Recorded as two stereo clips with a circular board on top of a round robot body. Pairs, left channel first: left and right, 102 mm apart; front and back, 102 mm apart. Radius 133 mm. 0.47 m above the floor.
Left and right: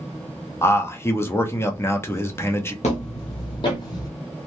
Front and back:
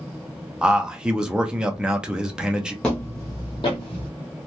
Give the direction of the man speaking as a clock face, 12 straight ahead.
8 o'clock.